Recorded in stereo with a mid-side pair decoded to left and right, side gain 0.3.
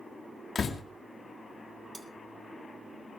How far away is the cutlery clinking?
About 4 m.